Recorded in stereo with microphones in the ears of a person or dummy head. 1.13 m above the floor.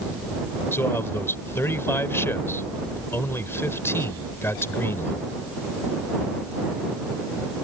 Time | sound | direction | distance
0.7 | a man speaking | 10° left (ahead or behind) | ?